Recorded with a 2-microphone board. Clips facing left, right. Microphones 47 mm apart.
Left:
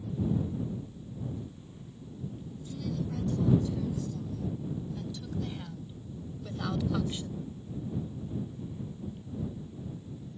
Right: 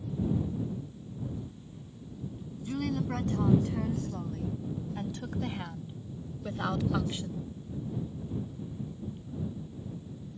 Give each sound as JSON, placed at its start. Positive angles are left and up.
{"t": 2.6, "sound": "a woman speaking", "side_deg": -55}